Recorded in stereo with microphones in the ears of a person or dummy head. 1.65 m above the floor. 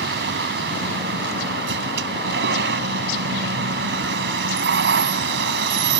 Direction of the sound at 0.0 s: 65° right (ahead or behind).